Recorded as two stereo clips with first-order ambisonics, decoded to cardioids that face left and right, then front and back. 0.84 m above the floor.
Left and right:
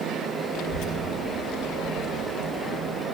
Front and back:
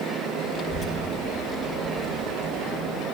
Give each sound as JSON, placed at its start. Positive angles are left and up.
{"t": 0.5, "sound": "a child speaking", "azimuth_deg": 70, "distance_m": 1.4}